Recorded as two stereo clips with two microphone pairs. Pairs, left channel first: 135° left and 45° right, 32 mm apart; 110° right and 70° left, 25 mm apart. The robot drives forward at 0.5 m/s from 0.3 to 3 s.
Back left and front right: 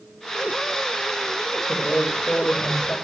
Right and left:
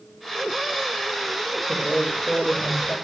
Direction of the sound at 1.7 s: 165° left.